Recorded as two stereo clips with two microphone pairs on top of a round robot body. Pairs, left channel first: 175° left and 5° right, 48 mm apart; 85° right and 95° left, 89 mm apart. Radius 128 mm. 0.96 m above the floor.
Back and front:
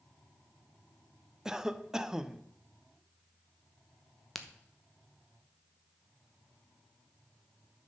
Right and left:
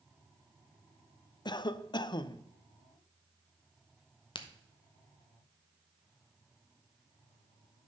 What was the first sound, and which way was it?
A cough, 70° right.